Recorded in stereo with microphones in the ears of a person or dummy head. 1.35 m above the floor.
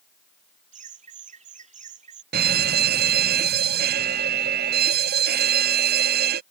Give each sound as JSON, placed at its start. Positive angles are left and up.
{"t": 0.7, "sound": "laughter", "side_deg": -35}
{"t": 2.3, "sound": "a fire alarm", "side_deg": -50}